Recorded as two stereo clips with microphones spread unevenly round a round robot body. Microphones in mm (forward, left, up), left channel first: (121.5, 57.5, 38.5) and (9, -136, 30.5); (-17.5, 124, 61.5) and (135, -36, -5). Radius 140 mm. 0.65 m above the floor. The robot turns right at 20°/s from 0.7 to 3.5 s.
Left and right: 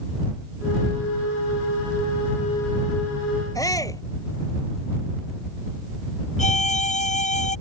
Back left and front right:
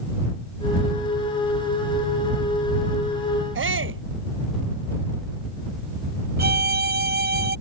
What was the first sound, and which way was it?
A shout, 15° right.